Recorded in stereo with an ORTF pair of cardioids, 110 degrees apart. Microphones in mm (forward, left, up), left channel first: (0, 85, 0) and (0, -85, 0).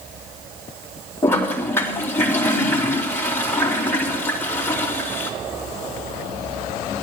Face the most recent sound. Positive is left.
turn(degrees=15)